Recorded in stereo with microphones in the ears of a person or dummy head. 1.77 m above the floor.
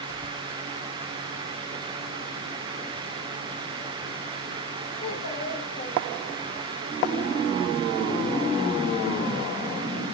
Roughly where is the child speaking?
Left.